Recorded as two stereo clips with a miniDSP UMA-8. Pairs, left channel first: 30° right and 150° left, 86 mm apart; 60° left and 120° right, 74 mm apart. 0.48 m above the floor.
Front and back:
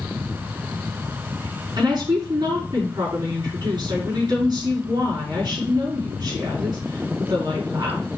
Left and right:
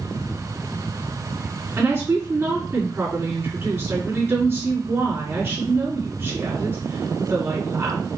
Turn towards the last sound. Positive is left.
turn(degrees=-175)